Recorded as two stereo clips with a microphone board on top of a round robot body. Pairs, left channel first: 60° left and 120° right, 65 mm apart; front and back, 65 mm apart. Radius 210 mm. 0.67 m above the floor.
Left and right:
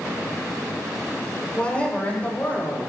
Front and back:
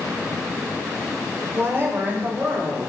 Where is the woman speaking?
135° left, 4.5 m; by 2.9 s 120° left, 6 m.